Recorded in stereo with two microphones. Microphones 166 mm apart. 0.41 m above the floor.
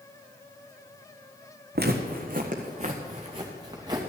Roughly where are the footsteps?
Right.